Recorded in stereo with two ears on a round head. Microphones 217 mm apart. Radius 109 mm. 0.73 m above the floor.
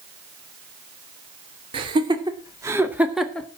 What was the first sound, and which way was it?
Laughter, 20° right (ahead or behind).